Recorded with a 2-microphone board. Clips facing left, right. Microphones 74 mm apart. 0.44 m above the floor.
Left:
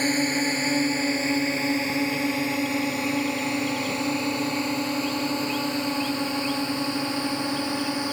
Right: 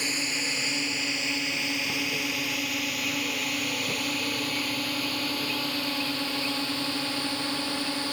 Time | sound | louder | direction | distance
0.0 | a drone | left 9 dB | 45° left (ahead or behind) | ?